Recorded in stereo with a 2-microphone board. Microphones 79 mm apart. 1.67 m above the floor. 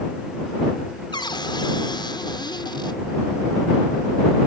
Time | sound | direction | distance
1.1 | a cupboard door | 75° left (ahead or behind) | ?